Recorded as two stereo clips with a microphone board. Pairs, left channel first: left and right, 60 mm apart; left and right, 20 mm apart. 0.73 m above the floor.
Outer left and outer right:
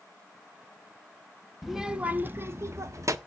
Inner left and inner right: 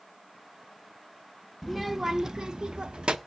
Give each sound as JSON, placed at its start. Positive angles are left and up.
{"t": 1.6, "sound": "a child speaking", "side_deg": 0, "distance_m": 0.6}